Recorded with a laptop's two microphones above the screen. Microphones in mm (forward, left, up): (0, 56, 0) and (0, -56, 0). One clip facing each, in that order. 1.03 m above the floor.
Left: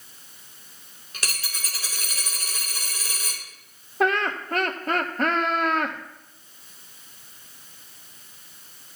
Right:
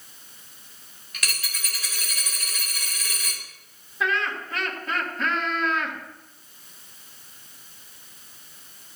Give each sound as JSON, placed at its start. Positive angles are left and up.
{"t": 1.1, "sound": "a dropped coin", "side_deg": 35, "distance_m": 1.9}
{"t": 4.0, "sound": "laughter", "side_deg": 55, "distance_m": 1.4}